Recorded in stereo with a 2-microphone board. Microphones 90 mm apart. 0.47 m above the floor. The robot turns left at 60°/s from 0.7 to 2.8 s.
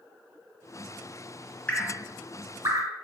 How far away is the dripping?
About 0.8 m.